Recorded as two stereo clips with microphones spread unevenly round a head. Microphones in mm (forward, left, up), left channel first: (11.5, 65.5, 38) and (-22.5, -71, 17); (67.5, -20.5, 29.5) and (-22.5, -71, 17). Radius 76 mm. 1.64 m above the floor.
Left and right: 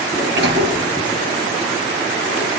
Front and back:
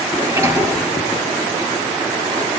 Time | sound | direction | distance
0.1 | a sliding door | 90° right | 7.5 m